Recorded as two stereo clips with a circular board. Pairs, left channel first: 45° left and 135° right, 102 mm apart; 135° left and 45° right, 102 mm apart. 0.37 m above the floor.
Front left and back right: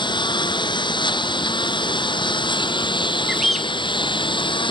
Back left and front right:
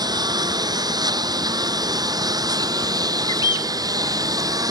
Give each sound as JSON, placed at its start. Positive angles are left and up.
{"t": 0.0, "sound": "a lawn mower", "azimuth_deg": 5}
{"t": 3.3, "sound": "a bird", "azimuth_deg": 135}